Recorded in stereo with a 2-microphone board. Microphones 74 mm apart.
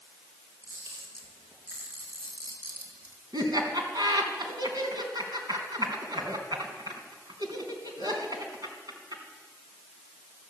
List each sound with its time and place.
0.6 s a camera shutter: 35° right (ahead or behind), 4 m
3.3 s laughter: 65° right (ahead or behind), 3 m